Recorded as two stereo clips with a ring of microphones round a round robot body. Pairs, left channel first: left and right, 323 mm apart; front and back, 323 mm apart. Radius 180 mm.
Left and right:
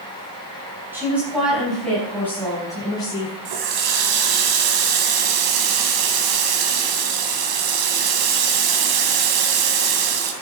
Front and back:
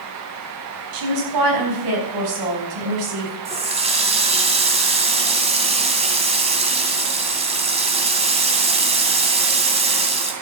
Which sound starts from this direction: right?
A running tap, at 3.5 s.